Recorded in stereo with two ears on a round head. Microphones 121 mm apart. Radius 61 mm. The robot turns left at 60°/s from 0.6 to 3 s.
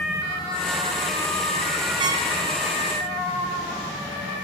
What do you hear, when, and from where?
2.0 s a trumpet: 40° right (ahead or behind), 3.5 m; by 2.3 s 20° right (ahead or behind), 3.5 m